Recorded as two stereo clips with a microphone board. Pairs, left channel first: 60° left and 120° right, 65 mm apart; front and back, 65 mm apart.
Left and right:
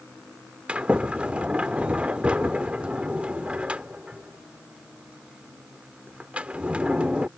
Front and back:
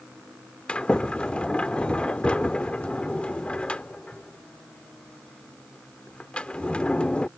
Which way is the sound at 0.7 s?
60° right.